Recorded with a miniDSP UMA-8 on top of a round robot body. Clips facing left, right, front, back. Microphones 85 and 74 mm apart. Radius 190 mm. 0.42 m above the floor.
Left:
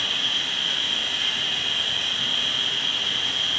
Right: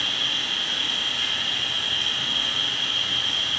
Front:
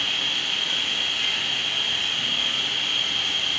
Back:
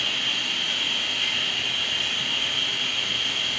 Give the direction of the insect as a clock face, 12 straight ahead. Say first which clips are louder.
Even, even; 12 o'clock.